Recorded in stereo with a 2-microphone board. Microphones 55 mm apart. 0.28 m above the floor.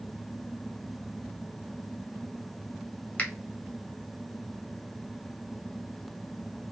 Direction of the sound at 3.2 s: 25° left (ahead or behind).